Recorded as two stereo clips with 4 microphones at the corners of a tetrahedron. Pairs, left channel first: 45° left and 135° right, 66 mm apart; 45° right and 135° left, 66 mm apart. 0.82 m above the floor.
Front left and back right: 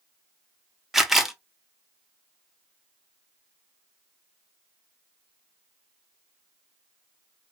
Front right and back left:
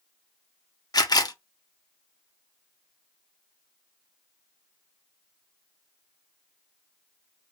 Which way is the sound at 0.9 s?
50° right.